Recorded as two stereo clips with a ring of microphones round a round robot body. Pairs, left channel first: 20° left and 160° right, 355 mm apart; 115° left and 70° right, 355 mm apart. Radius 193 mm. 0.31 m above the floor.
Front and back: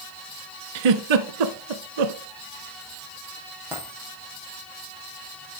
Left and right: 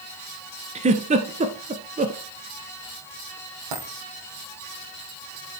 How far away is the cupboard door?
No cupboard door in this recording.